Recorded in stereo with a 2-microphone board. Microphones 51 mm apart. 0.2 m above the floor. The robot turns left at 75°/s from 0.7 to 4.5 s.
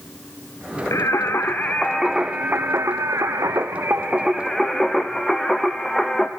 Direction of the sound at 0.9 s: 85° left.